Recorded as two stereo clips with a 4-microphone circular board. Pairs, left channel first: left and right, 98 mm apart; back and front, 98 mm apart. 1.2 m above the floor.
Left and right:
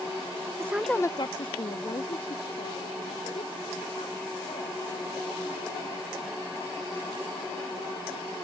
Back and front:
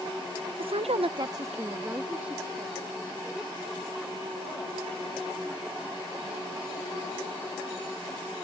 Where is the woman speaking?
30° right; by 8.0 s 90° left.